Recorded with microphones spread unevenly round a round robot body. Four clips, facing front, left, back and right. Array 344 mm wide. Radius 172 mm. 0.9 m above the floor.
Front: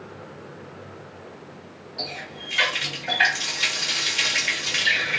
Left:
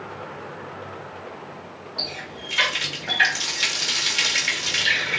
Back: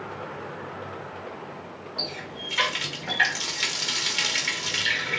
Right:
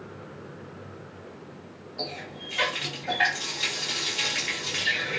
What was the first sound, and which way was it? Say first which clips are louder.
A running tap: right 1 dB, front 2 dB; 135° left.